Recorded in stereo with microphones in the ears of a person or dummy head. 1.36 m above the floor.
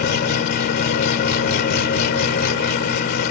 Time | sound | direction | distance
0.0 | an engine running | 60° left (ahead or behind) | ?